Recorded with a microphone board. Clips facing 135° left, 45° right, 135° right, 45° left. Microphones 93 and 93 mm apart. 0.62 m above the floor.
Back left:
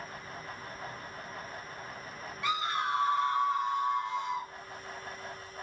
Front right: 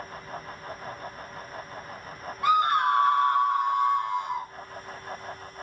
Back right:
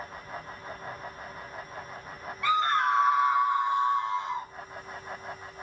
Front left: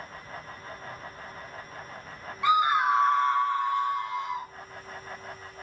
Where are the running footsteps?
I don't hear running footsteps.